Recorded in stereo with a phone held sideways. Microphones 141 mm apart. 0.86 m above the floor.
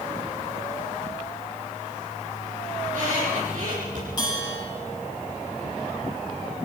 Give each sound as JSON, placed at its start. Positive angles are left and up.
{"t": 2.8, "sound": "a squeak", "side_deg": -70, "distance_m": 10.0}
{"t": 4.2, "sound": "a bell", "side_deg": 30, "distance_m": 8.0}